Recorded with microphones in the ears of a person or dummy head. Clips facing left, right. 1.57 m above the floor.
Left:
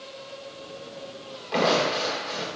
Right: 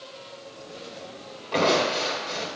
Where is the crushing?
10° left (ahead or behind), 2 m.